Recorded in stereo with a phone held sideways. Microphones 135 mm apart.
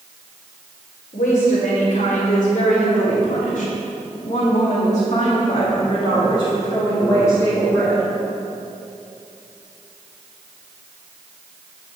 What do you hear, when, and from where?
1.1 s a woman speaking: 70° left (ahead or behind), 3.5 m; by 8.1 s 10° left (ahead or behind), 2.5 m